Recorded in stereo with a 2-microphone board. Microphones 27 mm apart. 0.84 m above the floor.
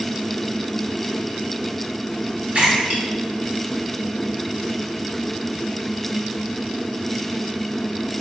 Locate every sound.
2.5 s a splash: 50° right (ahead or behind), 1.2 m